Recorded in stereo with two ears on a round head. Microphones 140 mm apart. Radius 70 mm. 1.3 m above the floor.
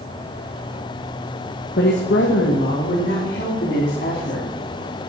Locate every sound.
1.8 s a woman speaking: 75° left (ahead or behind), 1.2 m; by 4.5 s 65° left (ahead or behind), 3.5 m